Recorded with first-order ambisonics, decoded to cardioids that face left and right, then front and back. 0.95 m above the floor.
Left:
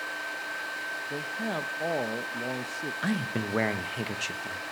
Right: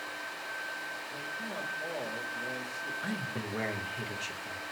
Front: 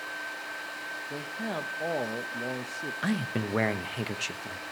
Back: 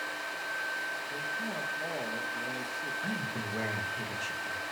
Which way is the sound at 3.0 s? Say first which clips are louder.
Left 5 dB, front 3 dB; 40° left.